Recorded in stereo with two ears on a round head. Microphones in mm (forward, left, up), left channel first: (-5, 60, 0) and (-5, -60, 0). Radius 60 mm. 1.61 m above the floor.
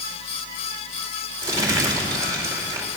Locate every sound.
1.4 s crumpling: 25° right (ahead or behind), 4 m